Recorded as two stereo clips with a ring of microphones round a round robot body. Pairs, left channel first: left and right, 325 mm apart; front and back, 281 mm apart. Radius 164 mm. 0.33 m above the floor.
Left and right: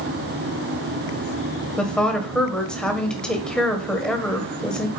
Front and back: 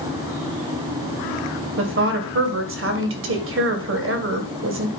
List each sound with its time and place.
1.8 s a woman speaking: 175° left, 1.8 m